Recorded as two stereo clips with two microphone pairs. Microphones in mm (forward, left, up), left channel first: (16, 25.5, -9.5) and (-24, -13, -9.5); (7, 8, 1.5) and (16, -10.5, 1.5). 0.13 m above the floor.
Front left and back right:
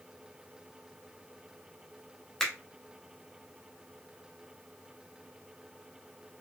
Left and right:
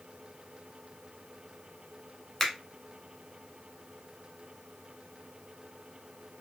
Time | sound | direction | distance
2.4 | a finger snap | 100° left | 0.8 m